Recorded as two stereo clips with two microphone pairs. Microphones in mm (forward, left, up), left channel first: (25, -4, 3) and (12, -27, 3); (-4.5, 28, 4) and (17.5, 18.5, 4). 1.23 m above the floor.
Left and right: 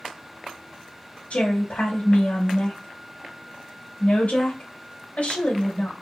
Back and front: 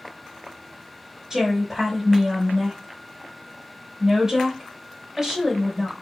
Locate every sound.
1.3 s a woman speaking: 45° left, 2 m